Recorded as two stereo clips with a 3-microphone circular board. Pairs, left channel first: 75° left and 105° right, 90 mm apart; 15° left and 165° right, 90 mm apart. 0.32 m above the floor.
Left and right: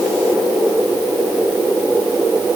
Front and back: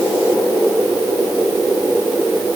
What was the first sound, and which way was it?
Only background noise.